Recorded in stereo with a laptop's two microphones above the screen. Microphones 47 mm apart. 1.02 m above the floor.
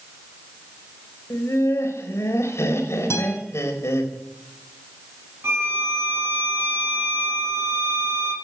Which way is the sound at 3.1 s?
80° left.